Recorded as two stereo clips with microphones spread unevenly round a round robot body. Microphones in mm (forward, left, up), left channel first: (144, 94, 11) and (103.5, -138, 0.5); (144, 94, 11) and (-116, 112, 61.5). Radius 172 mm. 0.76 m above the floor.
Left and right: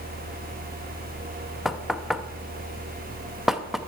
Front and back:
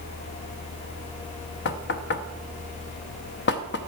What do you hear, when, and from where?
1.6 s knocking: 15° right, 0.6 m